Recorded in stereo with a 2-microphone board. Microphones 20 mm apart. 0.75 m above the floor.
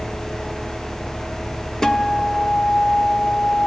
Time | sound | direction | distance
1.8 | a guitar | 30° left (ahead or behind) | 1.4 m